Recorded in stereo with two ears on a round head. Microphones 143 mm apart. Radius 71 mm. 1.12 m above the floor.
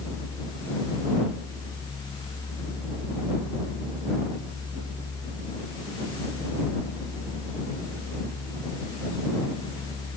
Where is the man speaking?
No man speaking in this recording.